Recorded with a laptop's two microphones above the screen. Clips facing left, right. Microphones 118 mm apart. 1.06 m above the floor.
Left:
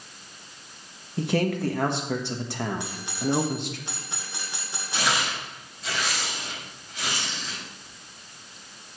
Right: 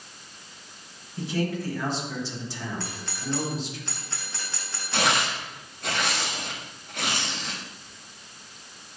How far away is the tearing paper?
About 1.6 m.